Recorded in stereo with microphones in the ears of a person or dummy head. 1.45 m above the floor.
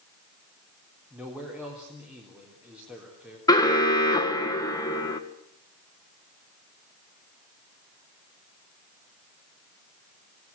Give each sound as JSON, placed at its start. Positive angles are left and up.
{"t": 1.1, "sound": "a man speaking", "side_deg": -5, "distance_m": 4.0}
{"t": 3.5, "sound": "an alarm", "side_deg": 20, "distance_m": 2.5}